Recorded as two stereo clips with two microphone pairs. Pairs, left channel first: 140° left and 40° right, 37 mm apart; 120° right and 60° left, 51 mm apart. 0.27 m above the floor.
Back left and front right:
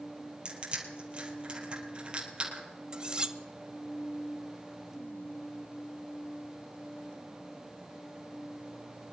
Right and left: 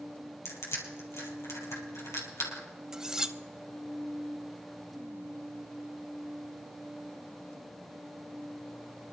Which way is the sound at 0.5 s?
95° right.